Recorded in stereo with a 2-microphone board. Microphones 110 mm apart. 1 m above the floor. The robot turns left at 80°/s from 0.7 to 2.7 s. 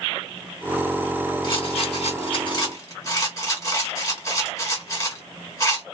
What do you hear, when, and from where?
1.4 s a rattle: 45° left (ahead or behind), 1.9 m; by 5.8 s 30° left (ahead or behind), 1.9 m